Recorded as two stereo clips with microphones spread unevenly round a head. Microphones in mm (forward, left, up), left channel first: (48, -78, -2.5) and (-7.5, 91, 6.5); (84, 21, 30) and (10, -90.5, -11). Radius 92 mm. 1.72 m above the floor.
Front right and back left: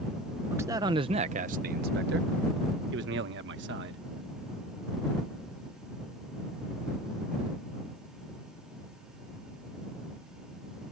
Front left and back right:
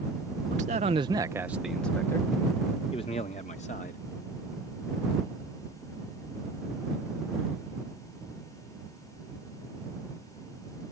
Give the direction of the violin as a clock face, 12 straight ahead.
I don't hear a violin.